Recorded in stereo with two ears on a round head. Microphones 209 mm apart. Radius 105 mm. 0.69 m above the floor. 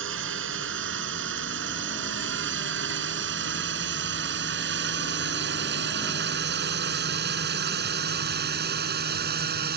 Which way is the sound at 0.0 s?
60° right (ahead or behind).